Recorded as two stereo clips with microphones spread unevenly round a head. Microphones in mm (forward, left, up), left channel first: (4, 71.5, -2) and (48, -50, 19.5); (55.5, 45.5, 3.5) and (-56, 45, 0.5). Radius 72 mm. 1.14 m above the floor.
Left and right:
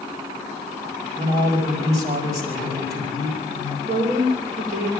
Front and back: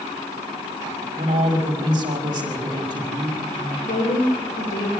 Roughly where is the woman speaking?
Ahead right.